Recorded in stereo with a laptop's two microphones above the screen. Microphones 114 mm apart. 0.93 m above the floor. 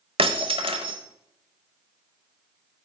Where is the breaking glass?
55° right (ahead or behind), 1.0 m.